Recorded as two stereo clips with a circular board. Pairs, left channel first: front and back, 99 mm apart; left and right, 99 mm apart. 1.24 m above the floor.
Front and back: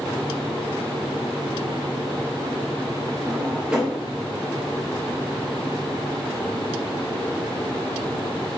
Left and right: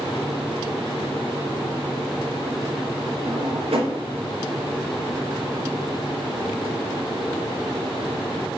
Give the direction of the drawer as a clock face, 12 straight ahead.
3 o'clock.